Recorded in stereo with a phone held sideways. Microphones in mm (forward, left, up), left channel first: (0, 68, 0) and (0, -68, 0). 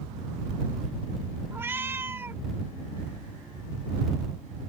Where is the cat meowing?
15° right (ahead or behind).